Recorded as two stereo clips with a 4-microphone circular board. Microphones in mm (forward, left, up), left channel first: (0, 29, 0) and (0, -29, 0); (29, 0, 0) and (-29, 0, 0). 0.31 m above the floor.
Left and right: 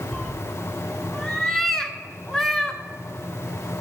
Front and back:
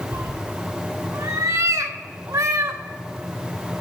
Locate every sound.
0.1 s a cat meowing: 170° left, 0.8 m